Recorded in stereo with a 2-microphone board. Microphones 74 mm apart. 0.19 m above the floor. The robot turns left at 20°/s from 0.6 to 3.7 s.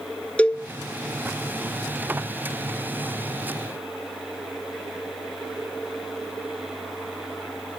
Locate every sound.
0.4 s a cowbell: 20° left (ahead or behind), 0.6 m